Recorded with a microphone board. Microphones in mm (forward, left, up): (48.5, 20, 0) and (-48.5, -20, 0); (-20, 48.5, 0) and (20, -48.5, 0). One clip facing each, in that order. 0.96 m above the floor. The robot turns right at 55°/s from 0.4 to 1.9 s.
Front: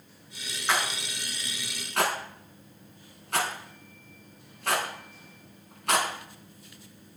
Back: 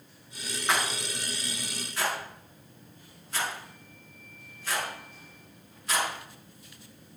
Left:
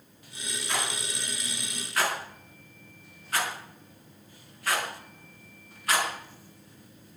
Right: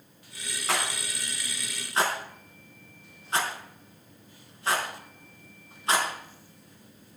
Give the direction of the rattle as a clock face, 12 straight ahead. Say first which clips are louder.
Even, right 3 dB; 2 o'clock.